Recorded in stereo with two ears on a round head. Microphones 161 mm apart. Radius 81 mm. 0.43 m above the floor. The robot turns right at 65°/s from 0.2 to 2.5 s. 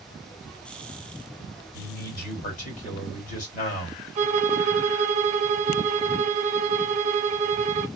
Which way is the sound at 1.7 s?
75° left.